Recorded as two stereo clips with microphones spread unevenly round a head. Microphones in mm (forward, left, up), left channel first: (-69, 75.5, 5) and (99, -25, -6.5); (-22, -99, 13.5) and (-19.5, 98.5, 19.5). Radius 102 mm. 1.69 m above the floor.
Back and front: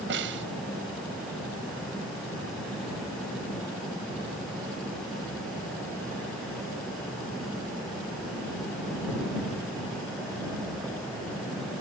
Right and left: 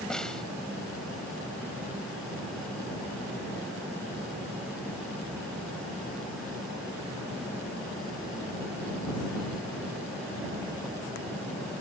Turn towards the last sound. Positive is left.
turn(degrees=-5)